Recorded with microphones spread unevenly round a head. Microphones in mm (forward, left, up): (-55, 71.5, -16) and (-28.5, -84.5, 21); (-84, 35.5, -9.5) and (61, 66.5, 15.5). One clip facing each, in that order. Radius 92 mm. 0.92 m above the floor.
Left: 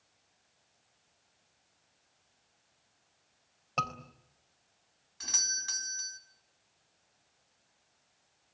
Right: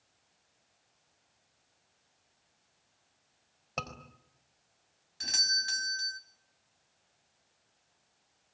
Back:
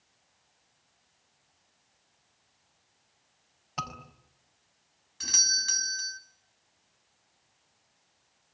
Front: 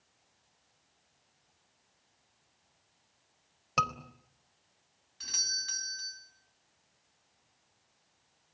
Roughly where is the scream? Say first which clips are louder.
Left 3 dB, front 5 dB; ahead.